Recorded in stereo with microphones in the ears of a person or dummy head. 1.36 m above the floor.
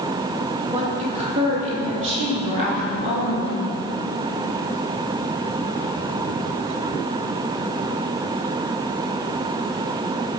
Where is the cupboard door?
I don't hear a cupboard door.